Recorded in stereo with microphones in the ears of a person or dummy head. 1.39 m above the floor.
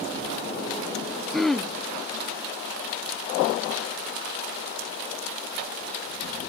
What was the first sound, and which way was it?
Throat clearing, 5° left (ahead or behind).